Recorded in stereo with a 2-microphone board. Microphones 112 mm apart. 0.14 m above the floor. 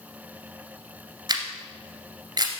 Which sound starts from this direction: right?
A camera shutter, at 1.3 s.